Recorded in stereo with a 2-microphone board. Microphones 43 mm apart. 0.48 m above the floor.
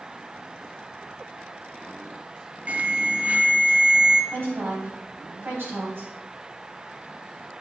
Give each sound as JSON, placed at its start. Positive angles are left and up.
{"t": 2.7, "sound": "an alarm", "side_deg": -35, "distance_m": 0.7}
{"t": 4.3, "sound": "a woman speaking", "side_deg": -60, "distance_m": 3.5}